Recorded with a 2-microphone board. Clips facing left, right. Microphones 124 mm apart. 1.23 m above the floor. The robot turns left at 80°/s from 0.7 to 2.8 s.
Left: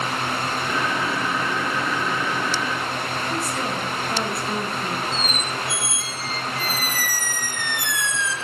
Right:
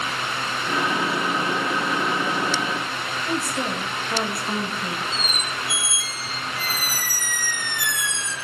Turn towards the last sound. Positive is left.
turn(degrees=-40)  # may be behind; listen again after turning